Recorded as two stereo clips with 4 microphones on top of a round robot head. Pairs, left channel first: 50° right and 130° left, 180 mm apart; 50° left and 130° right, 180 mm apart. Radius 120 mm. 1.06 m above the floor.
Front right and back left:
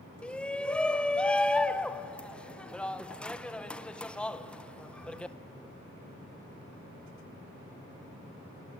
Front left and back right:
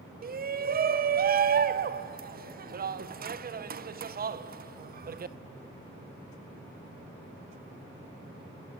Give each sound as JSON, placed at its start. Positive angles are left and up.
{"t": 0.2, "sound": "a shout", "azimuth_deg": -135, "distance_m": 0.9}